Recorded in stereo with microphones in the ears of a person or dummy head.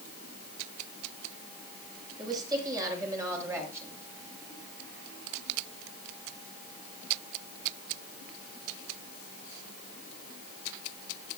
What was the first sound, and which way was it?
A woman speaking, 20° right (ahead or behind).